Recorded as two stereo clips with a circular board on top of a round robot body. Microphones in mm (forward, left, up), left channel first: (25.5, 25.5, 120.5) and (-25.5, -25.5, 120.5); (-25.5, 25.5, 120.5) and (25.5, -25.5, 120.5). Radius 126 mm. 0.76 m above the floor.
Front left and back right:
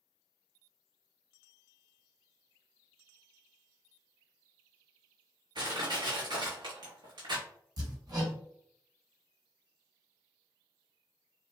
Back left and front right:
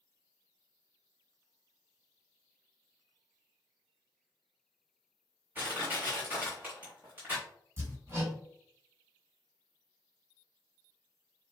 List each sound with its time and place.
5.5 s crushing: 110° right, 0.9 m
7.8 s hammering: 100° right, 1.5 m